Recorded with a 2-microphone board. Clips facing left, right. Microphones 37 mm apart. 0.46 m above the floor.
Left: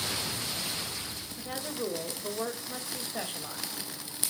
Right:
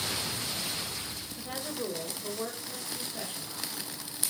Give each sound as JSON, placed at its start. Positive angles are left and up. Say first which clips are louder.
{"t": 1.4, "sound": "a woman speaking", "louder": "left 1 dB", "side_deg": 0, "distance_m": 1.8}